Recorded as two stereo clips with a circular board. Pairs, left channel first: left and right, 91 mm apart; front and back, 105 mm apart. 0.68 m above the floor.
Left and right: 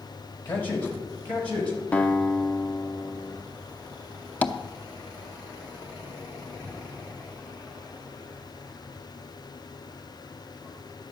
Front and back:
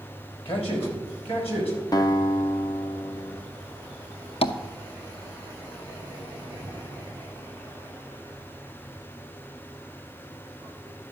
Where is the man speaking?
25° left, 4 m; by 1.8 s 15° left, 5 m.